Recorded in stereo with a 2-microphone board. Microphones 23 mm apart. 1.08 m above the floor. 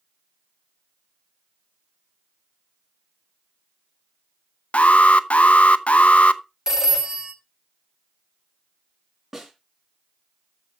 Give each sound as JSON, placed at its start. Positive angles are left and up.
{"t": 4.7, "sound": "an alarm", "side_deg": 75, "distance_m": 0.6}
{"t": 6.7, "sound": "a phone ringing", "side_deg": -20, "distance_m": 1.7}
{"t": 9.3, "sound": "a snare drum", "side_deg": -20, "distance_m": 3.5}